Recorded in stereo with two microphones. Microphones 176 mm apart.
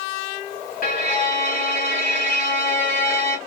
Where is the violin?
50° left (ahead or behind), 1.6 m.